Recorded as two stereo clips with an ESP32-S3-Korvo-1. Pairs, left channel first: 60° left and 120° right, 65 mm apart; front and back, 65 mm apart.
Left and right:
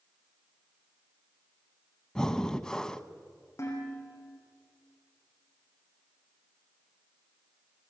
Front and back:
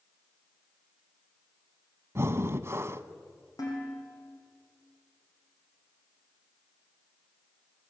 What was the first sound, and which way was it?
Breathing, 140° left.